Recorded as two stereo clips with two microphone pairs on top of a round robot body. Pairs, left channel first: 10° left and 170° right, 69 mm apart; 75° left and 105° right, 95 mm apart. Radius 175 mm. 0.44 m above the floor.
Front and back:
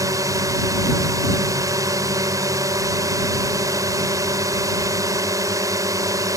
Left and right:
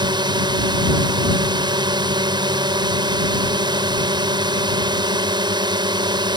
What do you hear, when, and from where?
0.0 s a drone: 145° right